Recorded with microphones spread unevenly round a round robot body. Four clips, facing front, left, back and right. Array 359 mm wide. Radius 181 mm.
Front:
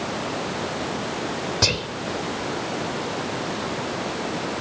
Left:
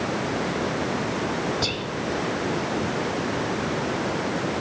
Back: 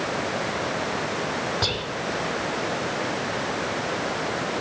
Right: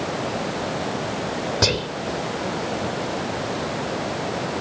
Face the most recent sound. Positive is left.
turn(degrees=-70)